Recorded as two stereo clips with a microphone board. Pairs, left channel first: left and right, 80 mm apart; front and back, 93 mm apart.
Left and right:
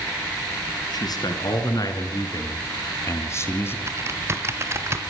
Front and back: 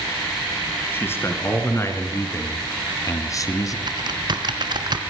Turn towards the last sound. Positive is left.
turn(degrees=-145)